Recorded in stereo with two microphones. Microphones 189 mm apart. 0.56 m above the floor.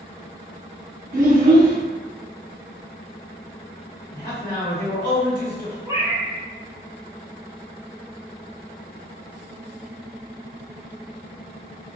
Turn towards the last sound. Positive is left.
turn(degrees=-20)  # may be behind; listen again after turning